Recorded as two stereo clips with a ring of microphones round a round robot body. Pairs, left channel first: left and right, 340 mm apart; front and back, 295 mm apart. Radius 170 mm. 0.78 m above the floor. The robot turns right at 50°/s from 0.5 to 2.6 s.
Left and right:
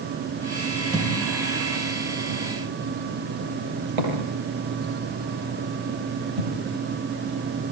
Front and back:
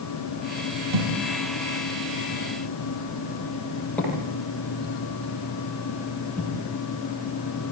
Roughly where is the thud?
Behind.